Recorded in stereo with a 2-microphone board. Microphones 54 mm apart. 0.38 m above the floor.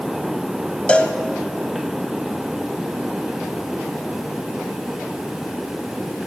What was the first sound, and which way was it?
A cowbell, 20° left (ahead or behind).